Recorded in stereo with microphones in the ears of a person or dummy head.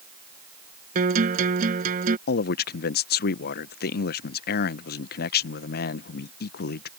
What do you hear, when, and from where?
0.9 s a guitar: 45° right (ahead or behind)
2.3 s a man speaking: 45° left (ahead or behind)